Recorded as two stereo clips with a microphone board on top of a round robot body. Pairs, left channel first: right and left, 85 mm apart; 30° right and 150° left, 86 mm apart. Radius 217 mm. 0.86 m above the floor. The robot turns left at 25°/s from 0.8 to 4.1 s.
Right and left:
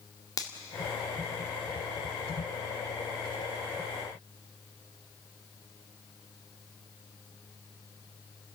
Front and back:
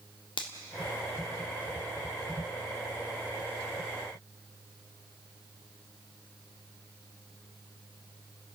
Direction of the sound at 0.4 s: 45° right.